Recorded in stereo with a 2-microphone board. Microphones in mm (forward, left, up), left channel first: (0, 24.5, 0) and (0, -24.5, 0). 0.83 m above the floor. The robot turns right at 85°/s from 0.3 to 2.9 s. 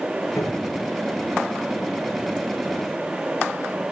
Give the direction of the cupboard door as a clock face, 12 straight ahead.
9 o'clock.